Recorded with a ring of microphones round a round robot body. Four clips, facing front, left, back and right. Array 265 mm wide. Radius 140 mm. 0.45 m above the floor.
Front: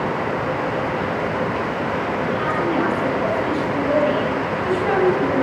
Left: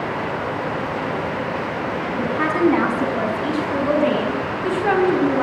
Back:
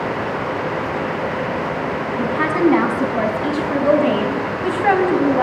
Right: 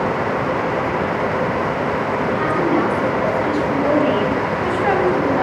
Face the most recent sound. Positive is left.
turn(degrees=-150)